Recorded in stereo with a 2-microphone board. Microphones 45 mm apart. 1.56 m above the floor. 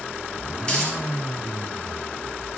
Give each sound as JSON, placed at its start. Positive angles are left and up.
{"t": 0.6, "sound": "a dropped coin", "side_deg": 25, "distance_m": 2.0}